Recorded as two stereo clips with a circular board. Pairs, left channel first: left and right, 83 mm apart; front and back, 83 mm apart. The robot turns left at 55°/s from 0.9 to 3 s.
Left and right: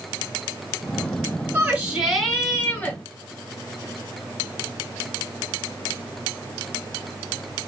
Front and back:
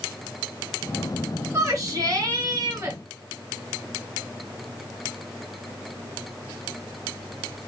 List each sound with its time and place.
1.5 s a shout: 145° right, 1.8 m; by 3.0 s 135° left, 1.8 m